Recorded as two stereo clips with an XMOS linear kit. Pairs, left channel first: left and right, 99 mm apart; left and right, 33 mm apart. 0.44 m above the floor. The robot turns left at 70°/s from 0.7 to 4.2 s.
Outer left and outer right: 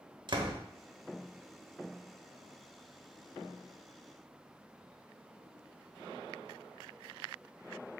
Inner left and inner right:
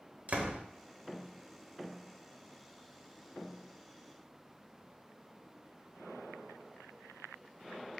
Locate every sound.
0.3 s a door slam: 50° right (ahead or behind), 1.1 m